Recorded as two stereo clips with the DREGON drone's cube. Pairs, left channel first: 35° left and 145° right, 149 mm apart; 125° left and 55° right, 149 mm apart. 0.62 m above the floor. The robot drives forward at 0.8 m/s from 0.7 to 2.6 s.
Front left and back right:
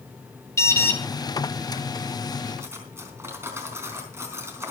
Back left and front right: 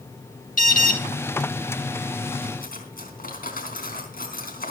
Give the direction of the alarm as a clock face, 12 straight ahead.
9 o'clock.